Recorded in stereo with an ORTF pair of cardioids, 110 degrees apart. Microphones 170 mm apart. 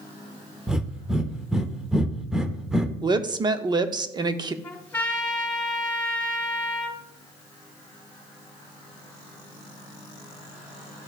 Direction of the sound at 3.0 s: 25° right.